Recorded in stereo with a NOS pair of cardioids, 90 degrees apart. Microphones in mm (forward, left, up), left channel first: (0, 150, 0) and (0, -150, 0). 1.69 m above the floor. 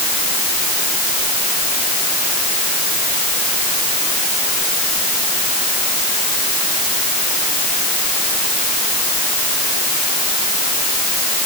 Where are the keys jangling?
No keys jangling in this recording.